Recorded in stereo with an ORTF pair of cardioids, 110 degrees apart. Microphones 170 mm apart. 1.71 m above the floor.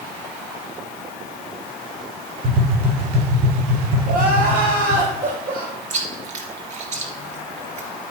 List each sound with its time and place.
2.4 s tapping: 60° right, 5.5 m
4.1 s crying: 60° right, 6 m
5.9 s chewing: 50° right, 3 m